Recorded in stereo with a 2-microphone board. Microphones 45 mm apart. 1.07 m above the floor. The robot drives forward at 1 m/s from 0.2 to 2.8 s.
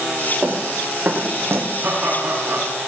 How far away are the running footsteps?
About 4 m.